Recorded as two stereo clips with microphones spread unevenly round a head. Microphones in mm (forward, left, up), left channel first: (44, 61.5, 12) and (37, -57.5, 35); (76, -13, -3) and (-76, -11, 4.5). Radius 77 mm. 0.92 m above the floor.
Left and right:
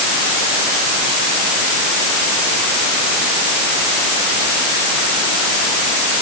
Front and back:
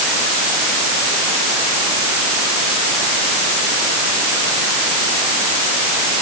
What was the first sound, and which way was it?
Only background noise.